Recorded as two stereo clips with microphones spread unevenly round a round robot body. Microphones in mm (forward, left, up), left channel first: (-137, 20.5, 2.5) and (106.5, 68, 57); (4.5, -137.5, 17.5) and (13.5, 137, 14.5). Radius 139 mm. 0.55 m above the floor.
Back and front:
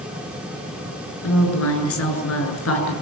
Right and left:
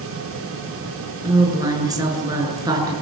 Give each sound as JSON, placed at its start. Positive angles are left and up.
{"t": 1.2, "sound": "a woman speaking", "azimuth_deg": 165, "distance_m": 7.5}